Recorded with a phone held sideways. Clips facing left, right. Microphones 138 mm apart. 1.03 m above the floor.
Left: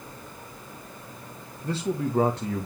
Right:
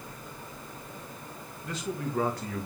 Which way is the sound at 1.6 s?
35° left (ahead or behind).